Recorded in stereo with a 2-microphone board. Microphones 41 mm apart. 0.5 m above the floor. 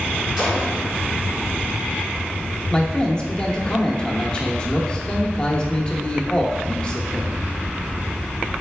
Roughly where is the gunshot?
Centre.